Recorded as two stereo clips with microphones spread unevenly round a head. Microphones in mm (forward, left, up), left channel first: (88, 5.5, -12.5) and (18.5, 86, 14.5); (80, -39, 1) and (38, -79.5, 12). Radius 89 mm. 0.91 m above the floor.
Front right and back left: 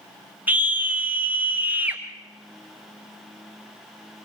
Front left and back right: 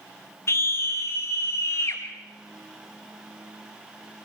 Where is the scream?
50° left, 1.3 m.